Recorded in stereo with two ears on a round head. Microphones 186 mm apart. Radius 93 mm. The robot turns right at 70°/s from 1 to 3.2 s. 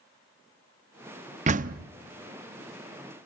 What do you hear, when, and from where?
1.5 s a door slam: 35° right (ahead or behind), 0.6 m; by 1.9 s 45° right (ahead or behind), 0.6 m